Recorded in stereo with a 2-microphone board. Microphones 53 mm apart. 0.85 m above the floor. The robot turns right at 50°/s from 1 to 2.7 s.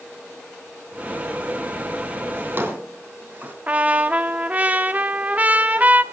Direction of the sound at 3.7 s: 30° right (ahead or behind).